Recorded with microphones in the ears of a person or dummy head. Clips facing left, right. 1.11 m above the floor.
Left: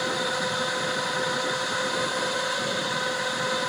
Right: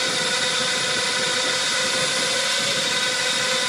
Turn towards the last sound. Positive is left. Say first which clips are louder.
# even
turn(degrees=-40)  # may be behind; listen again after turning